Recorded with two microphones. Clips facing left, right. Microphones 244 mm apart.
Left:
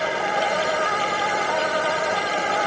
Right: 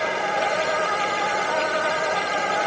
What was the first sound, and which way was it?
Only background noise.